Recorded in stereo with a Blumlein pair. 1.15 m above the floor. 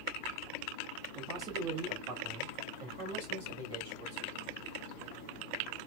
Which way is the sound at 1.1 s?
30° right.